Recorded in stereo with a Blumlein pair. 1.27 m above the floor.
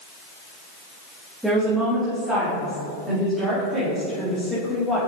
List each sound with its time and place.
1.4 s a woman speaking: 5° right, 2.0 m; by 5.0 s 10° right, 4 m